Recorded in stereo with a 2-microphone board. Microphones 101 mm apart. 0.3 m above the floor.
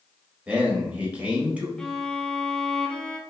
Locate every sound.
0.5 s a man speaking: 15° right (ahead or behind), 1.0 m
1.8 s a violin: 10° left (ahead or behind), 0.5 m